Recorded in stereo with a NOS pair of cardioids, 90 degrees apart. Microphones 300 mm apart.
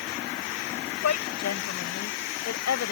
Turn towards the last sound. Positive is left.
turn(degrees=55)